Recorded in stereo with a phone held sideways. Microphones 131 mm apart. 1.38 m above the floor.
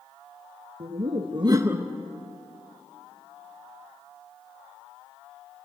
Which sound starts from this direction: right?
Laughter, at 0.8 s.